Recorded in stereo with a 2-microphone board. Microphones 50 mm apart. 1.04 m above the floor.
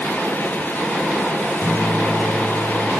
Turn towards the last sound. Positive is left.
turn(degrees=50)  # may be behind; listen again after turning